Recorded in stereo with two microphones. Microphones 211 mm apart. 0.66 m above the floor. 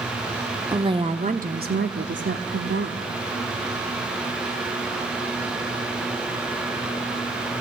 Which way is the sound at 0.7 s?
20° right (ahead or behind).